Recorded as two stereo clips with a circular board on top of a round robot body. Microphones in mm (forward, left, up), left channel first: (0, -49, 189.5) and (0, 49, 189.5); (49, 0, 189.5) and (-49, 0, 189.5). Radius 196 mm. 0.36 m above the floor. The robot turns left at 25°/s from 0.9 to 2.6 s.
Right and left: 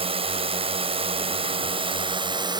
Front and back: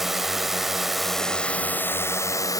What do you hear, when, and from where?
0.0 s a drone: 95° left; by 2.6 s 50° left